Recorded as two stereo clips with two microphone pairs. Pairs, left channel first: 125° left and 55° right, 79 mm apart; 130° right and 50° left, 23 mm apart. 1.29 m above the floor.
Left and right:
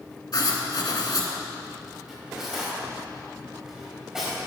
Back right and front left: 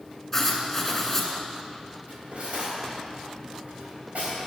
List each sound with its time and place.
0.3 s writing: 150° left, 2.0 m
2.1 s cutlery clinking: 25° left, 4.5 m